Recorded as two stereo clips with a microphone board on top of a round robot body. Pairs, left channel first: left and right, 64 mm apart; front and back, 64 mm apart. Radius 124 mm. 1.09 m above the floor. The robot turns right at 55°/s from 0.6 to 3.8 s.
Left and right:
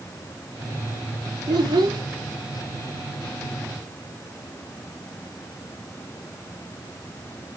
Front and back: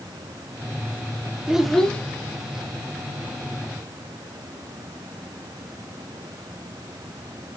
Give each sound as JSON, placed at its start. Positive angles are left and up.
{"t": 1.5, "sound": "a child speaking", "azimuth_deg": -100, "distance_m": 1.3}